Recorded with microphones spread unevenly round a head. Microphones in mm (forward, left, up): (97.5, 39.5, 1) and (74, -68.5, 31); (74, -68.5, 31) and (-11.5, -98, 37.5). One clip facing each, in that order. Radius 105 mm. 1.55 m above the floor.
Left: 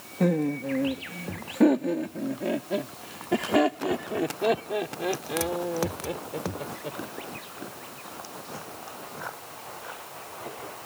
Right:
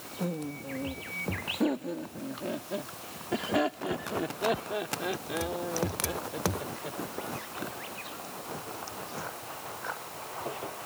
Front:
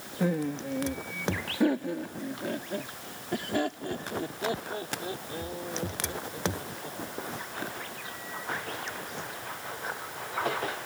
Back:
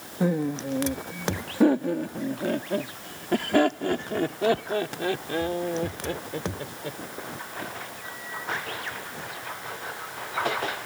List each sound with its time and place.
0.2 s laughter: 120° left; by 7.0 s 150° left